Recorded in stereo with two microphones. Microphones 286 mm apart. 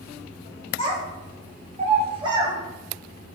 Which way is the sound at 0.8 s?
40° right (ahead or behind).